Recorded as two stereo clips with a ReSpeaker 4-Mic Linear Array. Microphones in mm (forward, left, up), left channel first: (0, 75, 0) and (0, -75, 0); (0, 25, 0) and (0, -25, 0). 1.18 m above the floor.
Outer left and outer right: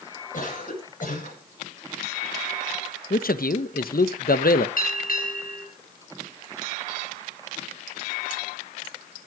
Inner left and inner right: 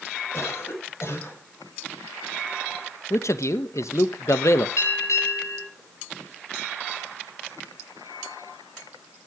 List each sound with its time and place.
0.3 s a cough: 60° left (ahead or behind), 7.5 m
3.1 s a man speaking: 75° left (ahead or behind), 1.1 m
4.8 s a bell: 70° left (ahead or behind), 8 m